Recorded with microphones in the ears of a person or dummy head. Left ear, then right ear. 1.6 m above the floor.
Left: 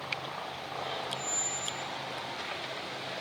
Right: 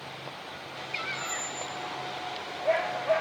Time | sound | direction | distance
1.1 | a squeak | 20° right (ahead or behind) | 3.5 m